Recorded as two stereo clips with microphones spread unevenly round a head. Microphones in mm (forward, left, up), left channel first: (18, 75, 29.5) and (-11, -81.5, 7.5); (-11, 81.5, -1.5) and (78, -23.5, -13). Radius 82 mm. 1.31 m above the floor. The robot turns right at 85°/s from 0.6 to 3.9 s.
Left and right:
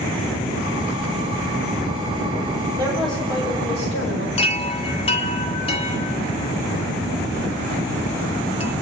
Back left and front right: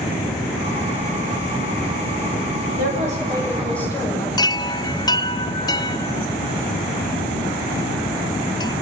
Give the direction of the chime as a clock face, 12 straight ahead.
9 o'clock.